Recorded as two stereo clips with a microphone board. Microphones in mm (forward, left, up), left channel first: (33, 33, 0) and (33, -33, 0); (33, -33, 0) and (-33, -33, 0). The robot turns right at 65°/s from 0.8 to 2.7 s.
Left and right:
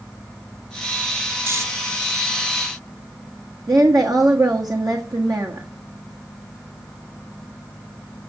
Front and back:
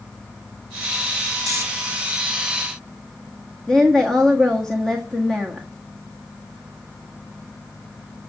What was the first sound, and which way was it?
Snoring, 140° right.